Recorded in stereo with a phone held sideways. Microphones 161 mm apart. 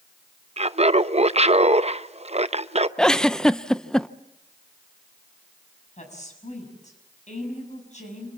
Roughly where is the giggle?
Centre.